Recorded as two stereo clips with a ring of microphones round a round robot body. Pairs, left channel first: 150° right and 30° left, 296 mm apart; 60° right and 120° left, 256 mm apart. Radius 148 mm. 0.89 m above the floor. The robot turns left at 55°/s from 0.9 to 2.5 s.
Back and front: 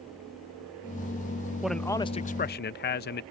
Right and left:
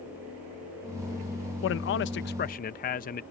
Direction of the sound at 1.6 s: 55° right.